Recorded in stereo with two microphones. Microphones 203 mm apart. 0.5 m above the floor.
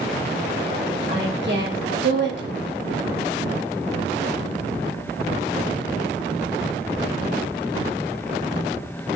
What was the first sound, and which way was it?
A woman speaking, 65° right (ahead or behind).